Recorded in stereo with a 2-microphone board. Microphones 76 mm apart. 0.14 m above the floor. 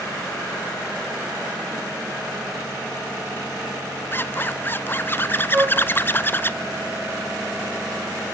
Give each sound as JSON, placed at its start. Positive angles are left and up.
{"t": 4.1, "sound": "a zipper", "side_deg": 30, "distance_m": 0.7}
{"t": 5.5, "sound": "a flute", "side_deg": -15, "distance_m": 4.5}